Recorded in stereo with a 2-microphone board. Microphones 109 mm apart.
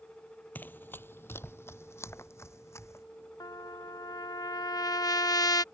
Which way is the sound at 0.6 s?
20° left (ahead or behind).